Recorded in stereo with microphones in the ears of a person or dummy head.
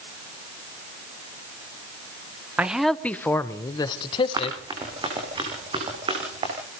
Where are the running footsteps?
15° right (ahead or behind), 5.5 m; by 6.5 s 20° right (ahead or behind), 6.5 m.